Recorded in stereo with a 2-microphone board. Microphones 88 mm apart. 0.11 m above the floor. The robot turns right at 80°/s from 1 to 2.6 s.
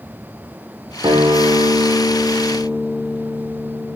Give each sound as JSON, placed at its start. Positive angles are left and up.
{"t": 1.0, "sound": "a guitar", "azimuth_deg": -135, "distance_m": 2.0}